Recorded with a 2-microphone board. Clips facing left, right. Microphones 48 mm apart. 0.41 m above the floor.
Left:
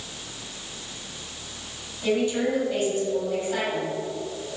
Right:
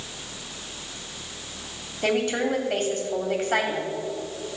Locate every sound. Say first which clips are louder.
2.0 s a woman speaking: even; 65° right (ahead or behind), 1.9 m